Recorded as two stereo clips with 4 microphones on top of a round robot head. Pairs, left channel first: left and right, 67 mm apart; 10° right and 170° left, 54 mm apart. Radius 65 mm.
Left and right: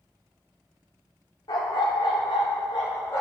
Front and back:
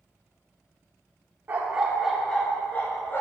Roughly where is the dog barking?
Behind left.